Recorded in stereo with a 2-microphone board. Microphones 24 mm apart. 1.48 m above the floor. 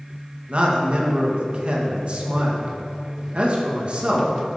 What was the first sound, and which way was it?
A man speaking, 50° right (ahead or behind).